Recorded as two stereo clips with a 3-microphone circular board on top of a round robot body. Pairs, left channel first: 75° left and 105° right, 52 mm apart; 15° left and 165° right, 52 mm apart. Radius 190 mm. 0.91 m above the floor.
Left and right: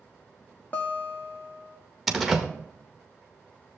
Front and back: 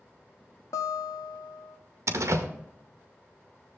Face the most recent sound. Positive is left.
turn(degrees=170)